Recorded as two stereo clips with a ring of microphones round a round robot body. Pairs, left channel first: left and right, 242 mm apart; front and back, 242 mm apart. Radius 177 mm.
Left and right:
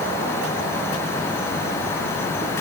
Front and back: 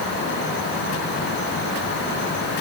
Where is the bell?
No bell in this recording.